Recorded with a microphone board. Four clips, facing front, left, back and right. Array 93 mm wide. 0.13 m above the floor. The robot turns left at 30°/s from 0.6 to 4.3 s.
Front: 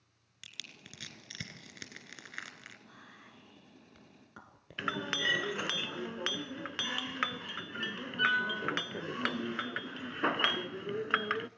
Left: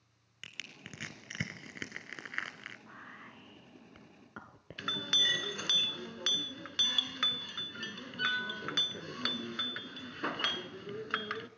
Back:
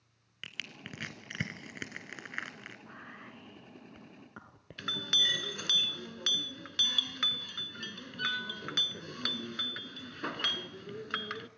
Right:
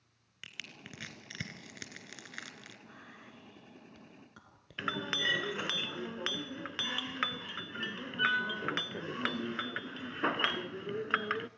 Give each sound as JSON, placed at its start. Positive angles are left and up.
{"t": 0.4, "sound": "crushing", "azimuth_deg": 175, "distance_m": 2.0}
{"t": 2.9, "sound": "whispering", "azimuth_deg": 155, "distance_m": 1.3}
{"t": 4.8, "sound": "a clink", "azimuth_deg": -35, "distance_m": 0.7}